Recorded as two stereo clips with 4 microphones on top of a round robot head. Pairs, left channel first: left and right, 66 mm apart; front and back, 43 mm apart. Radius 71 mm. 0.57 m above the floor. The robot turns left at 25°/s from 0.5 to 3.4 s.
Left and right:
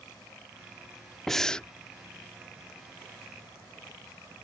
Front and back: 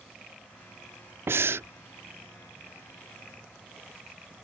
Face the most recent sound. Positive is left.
turn(degrees=125)